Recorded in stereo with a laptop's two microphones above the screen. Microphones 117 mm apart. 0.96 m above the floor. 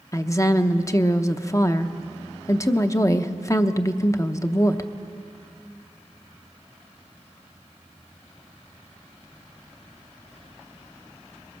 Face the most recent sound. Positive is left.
turn(degrees=25)  # may be behind; listen again after turning